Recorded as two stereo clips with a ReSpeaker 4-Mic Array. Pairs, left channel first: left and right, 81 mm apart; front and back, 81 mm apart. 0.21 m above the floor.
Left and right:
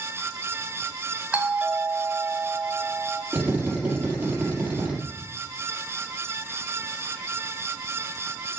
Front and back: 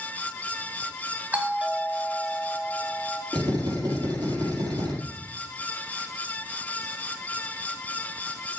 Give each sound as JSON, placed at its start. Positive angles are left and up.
{"t": 1.3, "sound": "a doorbell", "azimuth_deg": -140, "distance_m": 1.7}
{"t": 3.3, "sound": "a drill", "azimuth_deg": -160, "distance_m": 4.5}